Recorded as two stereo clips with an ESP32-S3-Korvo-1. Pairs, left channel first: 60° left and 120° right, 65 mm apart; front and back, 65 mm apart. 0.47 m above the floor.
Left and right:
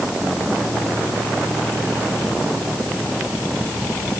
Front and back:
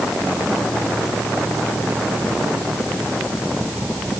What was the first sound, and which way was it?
Only background noise.